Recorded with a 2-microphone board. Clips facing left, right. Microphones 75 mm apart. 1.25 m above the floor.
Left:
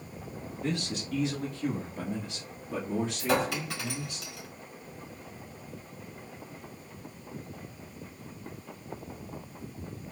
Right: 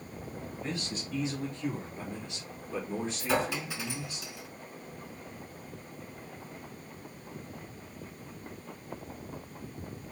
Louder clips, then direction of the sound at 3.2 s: Left 1 dB; 75° left (ahead or behind).